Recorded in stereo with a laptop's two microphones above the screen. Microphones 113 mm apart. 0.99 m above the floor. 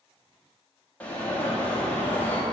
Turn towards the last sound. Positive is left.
turn(degrees=15)  # may be behind; listen again after turning